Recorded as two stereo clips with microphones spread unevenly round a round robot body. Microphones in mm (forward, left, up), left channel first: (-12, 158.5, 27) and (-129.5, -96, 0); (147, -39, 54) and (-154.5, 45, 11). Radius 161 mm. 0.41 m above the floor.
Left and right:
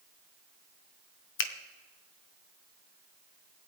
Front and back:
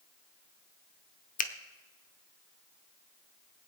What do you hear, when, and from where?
1.4 s a finger snap: 45° left, 0.9 m